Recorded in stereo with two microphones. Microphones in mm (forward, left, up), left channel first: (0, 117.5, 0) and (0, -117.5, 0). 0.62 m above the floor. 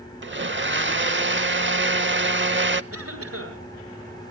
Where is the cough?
85° right, 9.5 m.